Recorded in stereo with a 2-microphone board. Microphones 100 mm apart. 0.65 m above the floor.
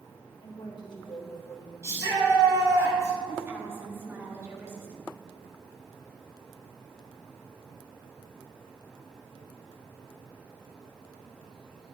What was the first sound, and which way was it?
A woman speaking, 55° left (ahead or behind).